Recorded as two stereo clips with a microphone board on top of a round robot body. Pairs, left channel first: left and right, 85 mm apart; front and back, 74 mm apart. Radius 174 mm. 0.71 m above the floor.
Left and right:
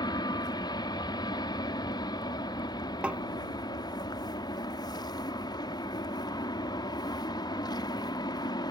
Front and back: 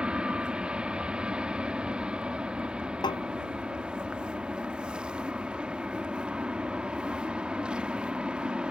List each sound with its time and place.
0.0 s an aircraft: 105° left
3.0 s tapping: 15° right